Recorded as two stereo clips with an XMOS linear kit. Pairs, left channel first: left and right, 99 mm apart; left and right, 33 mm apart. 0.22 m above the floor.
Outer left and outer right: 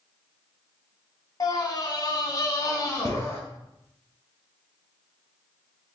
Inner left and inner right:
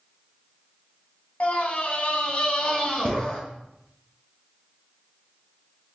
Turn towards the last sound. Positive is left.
turn(degrees=30)  # may be behind; listen again after turning